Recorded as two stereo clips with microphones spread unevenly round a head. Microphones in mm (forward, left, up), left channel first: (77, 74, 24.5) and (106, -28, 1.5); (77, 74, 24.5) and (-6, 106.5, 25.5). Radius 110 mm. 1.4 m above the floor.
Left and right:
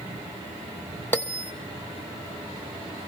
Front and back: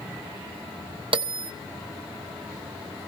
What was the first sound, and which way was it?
A bell, 170° left.